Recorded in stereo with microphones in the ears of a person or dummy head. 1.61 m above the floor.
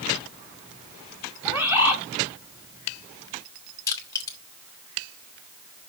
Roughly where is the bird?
Centre.